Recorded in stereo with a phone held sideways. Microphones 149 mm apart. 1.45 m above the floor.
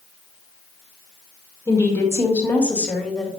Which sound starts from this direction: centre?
A woman speaking, at 1.7 s.